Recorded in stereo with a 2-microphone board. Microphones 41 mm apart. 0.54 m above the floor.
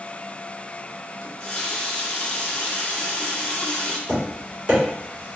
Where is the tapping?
35° right (ahead or behind), 1.3 m.